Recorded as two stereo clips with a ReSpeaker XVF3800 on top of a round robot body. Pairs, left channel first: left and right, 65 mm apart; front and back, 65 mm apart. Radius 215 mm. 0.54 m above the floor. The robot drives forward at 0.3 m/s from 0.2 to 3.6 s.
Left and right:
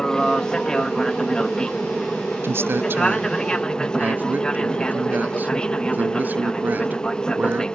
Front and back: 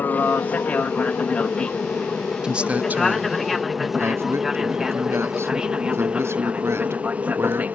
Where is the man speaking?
110° right; by 7.7 s 145° right.